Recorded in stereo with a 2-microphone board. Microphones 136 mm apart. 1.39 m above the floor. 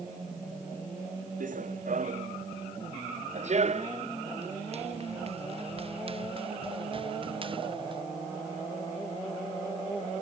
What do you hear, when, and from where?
1.4 s running footsteps: 70° right (ahead or behind); by 8.0 s 35° right (ahead or behind)